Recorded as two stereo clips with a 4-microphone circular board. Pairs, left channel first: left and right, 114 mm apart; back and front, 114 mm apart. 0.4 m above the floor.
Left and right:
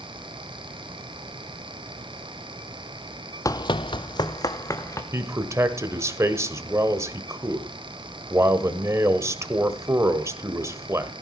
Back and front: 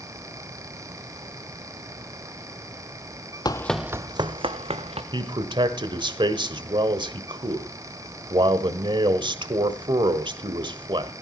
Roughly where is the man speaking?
Ahead right.